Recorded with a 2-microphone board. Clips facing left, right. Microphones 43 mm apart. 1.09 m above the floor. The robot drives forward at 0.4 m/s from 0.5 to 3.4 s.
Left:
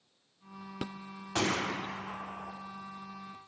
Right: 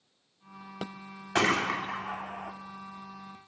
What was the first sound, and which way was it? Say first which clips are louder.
A gunshot: right 5 dB; 65° right (ahead or behind).